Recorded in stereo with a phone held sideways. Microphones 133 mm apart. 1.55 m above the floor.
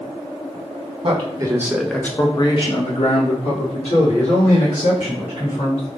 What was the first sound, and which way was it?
A man speaking, 45° right (ahead or behind).